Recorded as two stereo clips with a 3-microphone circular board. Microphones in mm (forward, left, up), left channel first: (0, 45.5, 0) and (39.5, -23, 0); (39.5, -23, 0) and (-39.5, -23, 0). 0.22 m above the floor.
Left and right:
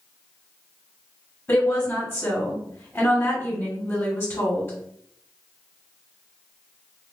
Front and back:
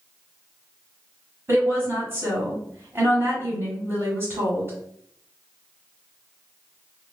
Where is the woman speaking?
155° left, 1.4 m.